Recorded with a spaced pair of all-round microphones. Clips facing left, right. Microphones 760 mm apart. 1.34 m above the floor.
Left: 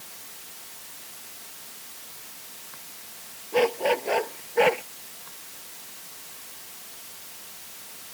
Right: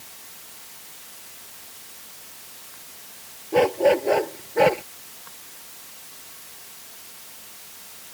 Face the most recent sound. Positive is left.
turn(degrees=-70)  # may be behind; listen again after turning